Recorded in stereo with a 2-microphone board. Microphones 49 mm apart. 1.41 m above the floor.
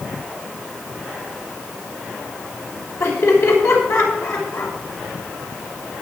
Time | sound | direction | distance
3.0 | laughter | 85° left | 6 m